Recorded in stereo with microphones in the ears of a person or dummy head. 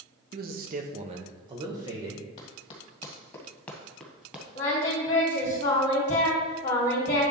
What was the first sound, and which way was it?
A man speaking, 45° right (ahead or behind).